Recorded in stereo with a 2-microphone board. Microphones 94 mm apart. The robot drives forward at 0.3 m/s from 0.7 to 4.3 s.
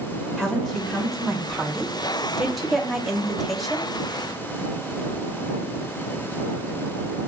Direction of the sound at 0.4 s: Centre (ahead or behind).